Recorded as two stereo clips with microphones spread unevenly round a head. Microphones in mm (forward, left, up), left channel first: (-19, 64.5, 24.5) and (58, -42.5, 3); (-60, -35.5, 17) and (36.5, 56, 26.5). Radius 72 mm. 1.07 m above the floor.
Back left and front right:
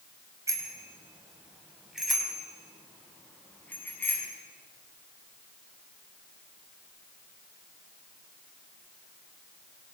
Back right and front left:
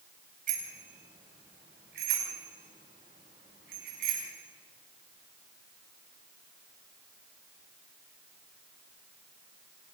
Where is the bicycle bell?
10° left, 5 m; by 4.3 s 50° left, 8 m.